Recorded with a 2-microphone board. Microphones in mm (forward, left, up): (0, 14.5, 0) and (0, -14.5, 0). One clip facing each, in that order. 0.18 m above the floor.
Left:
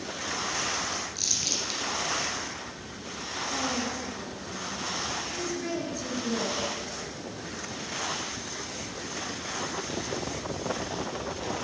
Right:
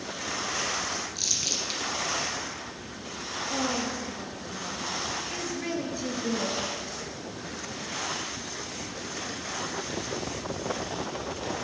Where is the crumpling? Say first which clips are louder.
Right 1 dB; centre (ahead or behind), 2.5 m.